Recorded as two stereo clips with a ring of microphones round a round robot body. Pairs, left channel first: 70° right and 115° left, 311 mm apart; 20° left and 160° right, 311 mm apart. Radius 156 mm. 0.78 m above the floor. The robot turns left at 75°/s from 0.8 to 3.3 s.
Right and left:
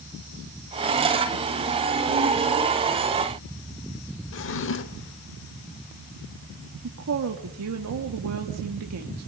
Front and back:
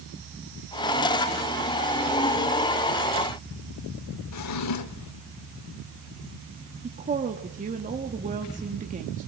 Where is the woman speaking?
140° left, 1.7 m.